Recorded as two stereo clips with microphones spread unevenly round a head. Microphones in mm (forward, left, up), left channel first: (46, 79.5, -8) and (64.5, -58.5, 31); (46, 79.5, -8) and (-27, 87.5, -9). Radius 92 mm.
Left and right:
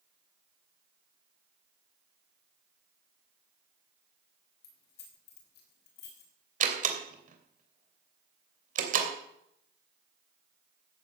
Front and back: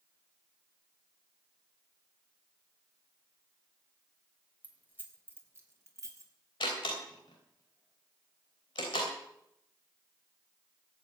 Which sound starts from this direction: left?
Keys jangling, at 4.6 s.